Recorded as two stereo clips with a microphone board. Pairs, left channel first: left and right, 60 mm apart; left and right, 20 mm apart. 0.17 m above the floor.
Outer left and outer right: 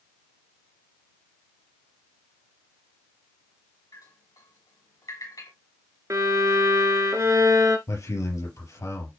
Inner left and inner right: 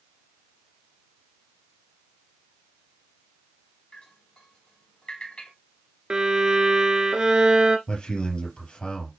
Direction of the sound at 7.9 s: 55° left (ahead or behind).